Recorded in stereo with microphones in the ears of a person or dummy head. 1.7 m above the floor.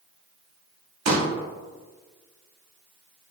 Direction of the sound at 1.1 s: 80° right.